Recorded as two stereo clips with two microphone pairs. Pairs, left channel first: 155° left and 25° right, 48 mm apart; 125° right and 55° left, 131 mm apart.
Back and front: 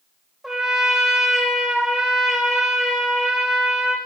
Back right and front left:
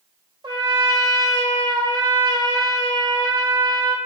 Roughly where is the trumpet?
Ahead left.